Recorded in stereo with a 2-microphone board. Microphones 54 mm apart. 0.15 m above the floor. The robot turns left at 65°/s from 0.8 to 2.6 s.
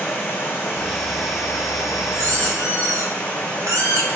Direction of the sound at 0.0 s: 145° left.